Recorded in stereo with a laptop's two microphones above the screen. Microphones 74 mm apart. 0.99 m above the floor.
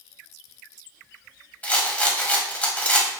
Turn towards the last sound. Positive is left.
turn(degrees=20)  # may be behind; listen again after turning